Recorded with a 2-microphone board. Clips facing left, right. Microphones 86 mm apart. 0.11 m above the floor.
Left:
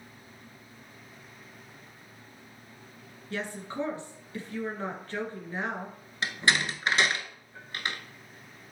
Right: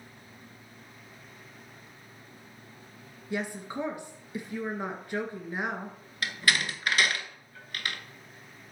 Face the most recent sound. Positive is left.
turn(degrees=25)  # may be behind; listen again after turning